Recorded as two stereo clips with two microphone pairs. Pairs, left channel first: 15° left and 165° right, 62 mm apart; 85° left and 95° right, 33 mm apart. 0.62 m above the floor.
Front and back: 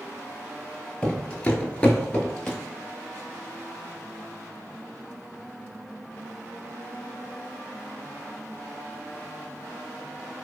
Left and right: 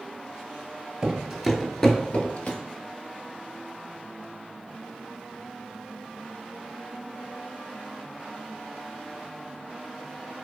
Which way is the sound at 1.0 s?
45° right.